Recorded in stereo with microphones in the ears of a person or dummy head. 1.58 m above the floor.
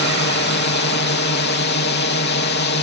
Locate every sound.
0.0 s a drone: 60° left (ahead or behind)